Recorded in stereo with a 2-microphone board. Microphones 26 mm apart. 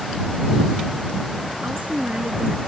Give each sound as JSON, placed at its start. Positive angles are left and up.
{"t": 1.6, "sound": "a woman speaking", "side_deg": -55}